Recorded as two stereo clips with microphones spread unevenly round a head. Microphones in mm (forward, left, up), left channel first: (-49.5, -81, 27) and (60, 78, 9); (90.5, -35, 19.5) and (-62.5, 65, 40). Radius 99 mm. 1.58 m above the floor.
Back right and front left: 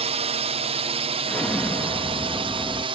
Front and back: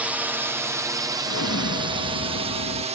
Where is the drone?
60° left; by 3.0 s 100° left.